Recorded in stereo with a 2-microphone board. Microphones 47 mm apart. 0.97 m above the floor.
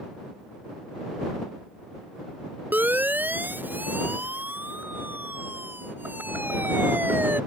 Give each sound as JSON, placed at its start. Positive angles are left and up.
{"t": 2.7, "sound": "a siren", "side_deg": -45}